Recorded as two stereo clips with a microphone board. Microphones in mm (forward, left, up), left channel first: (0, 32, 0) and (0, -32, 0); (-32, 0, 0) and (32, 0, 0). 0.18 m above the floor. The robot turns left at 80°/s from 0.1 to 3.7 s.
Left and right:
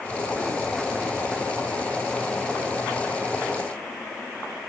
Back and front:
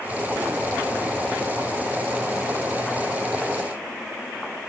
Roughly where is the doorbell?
No doorbell in this recording.